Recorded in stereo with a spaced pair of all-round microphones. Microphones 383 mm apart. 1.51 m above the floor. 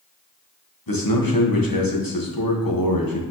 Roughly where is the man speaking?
Left.